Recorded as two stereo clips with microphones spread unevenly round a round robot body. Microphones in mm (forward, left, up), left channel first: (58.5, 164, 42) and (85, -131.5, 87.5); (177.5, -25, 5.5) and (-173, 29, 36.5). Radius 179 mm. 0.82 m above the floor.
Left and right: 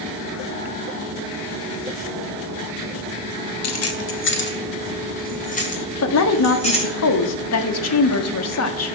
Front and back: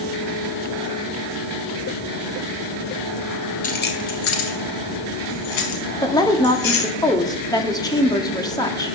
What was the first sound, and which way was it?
Keys jangling, 60° left.